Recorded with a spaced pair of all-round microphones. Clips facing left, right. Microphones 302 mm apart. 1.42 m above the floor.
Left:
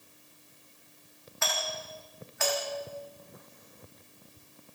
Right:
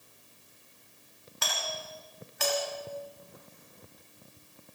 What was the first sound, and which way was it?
A doorbell, 40° right (ahead or behind).